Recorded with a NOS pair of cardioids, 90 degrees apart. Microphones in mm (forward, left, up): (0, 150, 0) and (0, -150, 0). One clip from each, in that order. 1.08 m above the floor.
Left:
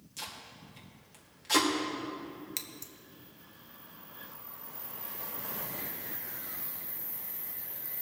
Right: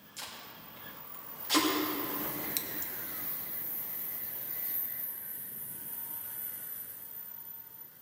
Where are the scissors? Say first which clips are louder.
Right 3 dB; 5° right, 0.8 m.